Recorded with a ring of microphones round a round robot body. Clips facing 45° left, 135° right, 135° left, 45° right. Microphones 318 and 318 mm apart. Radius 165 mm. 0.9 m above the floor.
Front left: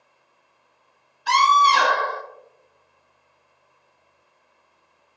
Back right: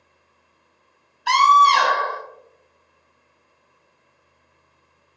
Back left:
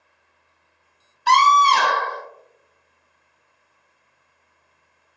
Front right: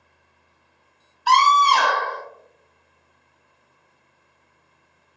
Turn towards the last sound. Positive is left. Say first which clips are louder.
# back right 2 dB, back left 1 dB
turn(degrees=125)